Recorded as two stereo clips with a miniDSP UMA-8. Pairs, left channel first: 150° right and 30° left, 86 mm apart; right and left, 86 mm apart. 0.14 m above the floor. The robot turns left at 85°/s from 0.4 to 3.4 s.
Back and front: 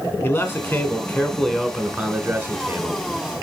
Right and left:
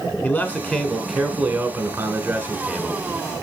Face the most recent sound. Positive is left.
turn(degrees=-25)